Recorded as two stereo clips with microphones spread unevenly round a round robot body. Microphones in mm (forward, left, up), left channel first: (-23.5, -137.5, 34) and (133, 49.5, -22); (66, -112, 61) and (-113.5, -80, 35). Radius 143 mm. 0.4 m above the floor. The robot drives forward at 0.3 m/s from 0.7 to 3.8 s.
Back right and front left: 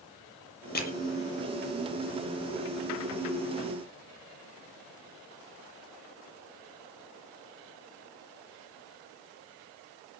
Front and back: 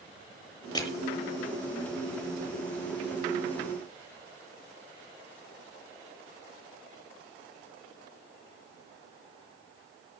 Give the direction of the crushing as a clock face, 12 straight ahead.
3 o'clock.